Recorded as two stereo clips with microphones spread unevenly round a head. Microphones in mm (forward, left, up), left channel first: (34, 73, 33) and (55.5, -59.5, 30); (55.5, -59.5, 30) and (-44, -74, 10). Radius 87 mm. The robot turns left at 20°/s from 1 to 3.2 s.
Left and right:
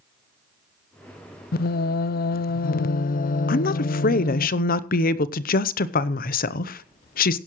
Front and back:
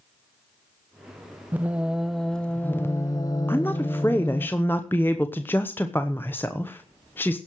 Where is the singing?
110° left, 0.5 m; by 4.5 s 80° left, 0.5 m.